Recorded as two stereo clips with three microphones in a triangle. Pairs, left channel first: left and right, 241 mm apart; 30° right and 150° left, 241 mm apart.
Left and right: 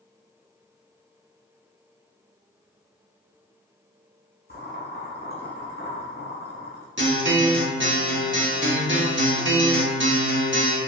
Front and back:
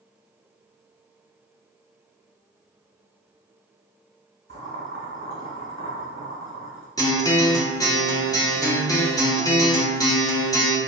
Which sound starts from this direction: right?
A guitar, at 7.0 s.